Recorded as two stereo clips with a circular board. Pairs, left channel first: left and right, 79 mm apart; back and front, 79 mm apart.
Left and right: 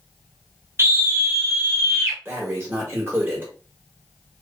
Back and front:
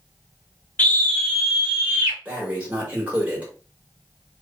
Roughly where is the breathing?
Ahead right.